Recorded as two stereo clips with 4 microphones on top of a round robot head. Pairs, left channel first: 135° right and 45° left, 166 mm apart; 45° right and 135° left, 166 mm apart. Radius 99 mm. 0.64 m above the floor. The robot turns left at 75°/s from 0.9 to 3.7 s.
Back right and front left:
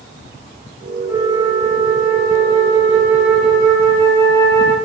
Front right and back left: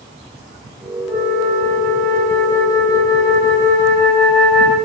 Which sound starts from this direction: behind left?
A flute, at 1.1 s.